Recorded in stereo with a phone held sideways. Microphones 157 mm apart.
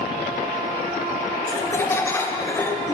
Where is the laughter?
15° left (ahead or behind), 0.5 m.